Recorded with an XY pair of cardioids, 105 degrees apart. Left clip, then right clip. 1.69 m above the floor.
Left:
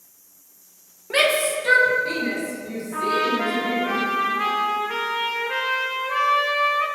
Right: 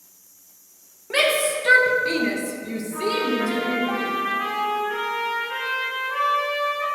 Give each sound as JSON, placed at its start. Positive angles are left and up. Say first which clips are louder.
{"t": 1.1, "sound": "a shout", "louder": "left 1 dB", "azimuth_deg": 5, "distance_m": 2.5}
{"t": 2.9, "sound": "a trumpet", "louder": "left 2 dB", "azimuth_deg": 65, "distance_m": 3.0}